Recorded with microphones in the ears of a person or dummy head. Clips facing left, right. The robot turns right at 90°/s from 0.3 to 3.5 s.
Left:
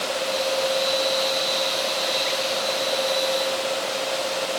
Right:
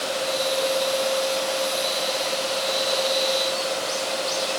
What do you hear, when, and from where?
Only background noise.